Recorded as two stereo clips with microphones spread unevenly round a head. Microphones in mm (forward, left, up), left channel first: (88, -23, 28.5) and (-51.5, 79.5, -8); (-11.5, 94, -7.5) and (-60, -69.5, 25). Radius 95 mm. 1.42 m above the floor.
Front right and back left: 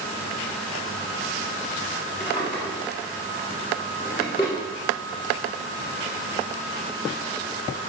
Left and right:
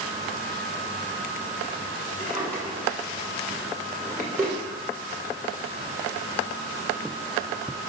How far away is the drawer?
About 1.1 m.